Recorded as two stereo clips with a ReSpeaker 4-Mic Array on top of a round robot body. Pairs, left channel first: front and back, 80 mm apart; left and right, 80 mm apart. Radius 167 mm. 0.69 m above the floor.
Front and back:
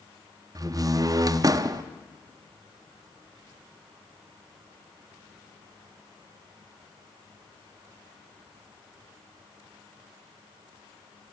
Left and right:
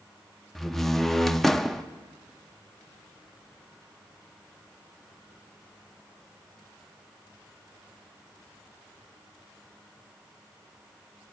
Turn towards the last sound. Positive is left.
turn(degrees=175)